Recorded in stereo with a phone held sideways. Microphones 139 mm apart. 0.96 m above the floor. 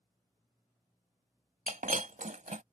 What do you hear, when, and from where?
1.7 s breaking glass: 70° right (ahead or behind)